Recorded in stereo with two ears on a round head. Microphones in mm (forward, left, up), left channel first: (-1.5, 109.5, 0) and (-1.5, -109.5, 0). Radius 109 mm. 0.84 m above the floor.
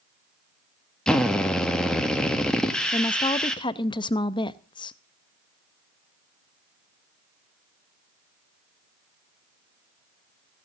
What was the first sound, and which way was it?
A drill, 5° left (ahead or behind).